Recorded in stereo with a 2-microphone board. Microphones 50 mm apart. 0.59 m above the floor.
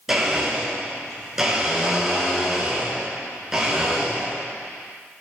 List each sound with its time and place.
0.1 s a blender: 10° right (ahead or behind), 5.5 m